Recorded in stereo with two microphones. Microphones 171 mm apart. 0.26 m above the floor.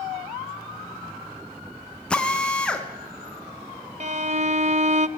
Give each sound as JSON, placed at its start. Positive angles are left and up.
{"t": 2.1, "sound": "a drill", "side_deg": 5, "distance_m": 3.0}
{"t": 4.0, "sound": "a violin", "side_deg": -50, "distance_m": 1.0}